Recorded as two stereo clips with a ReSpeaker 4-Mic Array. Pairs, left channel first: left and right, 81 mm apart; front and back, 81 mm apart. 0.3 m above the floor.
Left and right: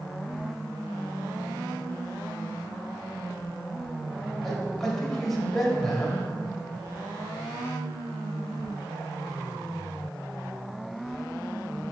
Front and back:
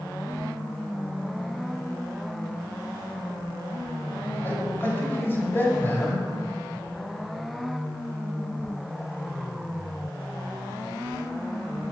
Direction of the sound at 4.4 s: 15° left.